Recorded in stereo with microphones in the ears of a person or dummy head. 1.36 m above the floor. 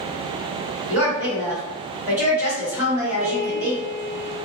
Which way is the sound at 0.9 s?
10° right (ahead or behind).